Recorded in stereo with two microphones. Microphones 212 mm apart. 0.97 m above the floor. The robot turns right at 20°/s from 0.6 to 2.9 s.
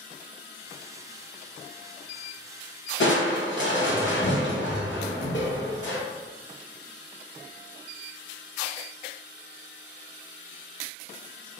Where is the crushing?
60° left (ahead or behind), 0.9 m.